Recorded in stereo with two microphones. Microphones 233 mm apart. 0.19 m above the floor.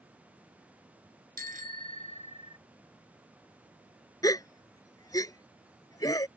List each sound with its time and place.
1.4 s a bicycle bell: 40° right (ahead or behind); by 2.6 s 20° right (ahead or behind)
4.2 s a gasp: 15° left (ahead or behind)